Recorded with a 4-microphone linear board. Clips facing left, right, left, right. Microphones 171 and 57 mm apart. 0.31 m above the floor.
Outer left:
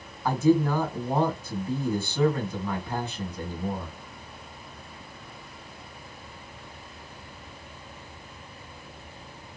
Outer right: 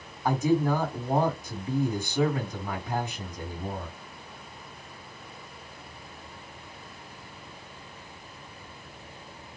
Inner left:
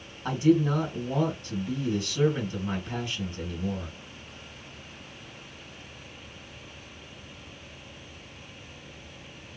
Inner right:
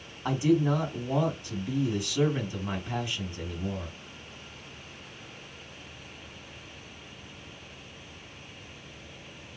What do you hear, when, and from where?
0.2 s a man speaking: 15° right (ahead or behind), 2 m